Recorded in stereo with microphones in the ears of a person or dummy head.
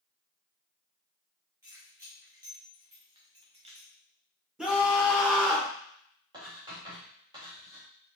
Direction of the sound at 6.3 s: 25° right (ahead or behind).